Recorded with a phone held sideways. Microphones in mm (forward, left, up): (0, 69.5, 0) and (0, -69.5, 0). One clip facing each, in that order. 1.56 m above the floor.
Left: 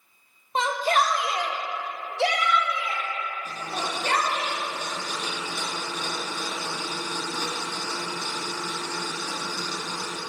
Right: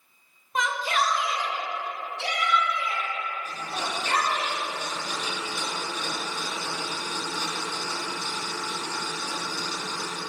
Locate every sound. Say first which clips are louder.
0.6 s a shout: left 4 dB; 25° left (ahead or behind), 0.6 m; by 4.5 s 60° left (ahead or behind), 2 m
3.5 s a blender: left 1 dB; 55° left (ahead or behind), 2.5 m